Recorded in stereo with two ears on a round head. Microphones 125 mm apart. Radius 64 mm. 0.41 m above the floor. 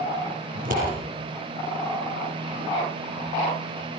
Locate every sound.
0.6 s scissors: 75° right (ahead or behind), 6.5 m